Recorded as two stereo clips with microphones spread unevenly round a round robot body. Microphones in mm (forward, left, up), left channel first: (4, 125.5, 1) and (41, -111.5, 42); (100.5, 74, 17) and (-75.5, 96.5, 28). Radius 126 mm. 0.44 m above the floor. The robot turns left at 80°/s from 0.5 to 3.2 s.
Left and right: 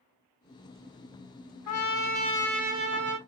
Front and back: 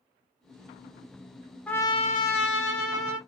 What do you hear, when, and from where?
1.7 s a trumpet: 80° left, 1.0 m; by 3.2 s 45° right, 1.0 m